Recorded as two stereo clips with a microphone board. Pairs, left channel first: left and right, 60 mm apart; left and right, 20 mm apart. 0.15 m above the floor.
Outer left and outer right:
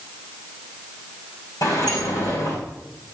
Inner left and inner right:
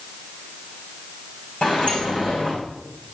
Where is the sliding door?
75° left (ahead or behind), 8 m.